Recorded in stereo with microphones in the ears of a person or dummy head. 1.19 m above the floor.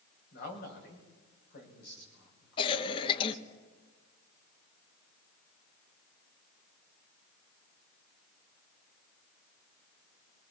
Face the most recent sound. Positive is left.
turn(degrees=30)  # may be behind; listen again after turning